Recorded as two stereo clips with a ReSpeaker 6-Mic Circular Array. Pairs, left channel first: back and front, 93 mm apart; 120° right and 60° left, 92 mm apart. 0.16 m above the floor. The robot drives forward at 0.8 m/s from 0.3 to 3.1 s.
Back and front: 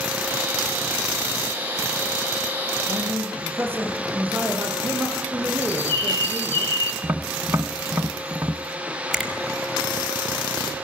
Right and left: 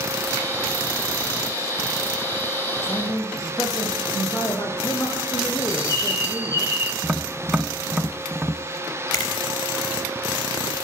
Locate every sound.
2.8 s a man speaking: 70° right, 10 m
5.6 s a bird: 120° left, 3 m
7.0 s tapping: 25° right, 1.0 m
9.1 s a finger snap: 90° right, 3.5 m